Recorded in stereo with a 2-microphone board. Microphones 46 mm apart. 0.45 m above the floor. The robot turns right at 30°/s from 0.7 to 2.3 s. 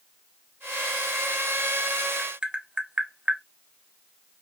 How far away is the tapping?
About 0.6 m.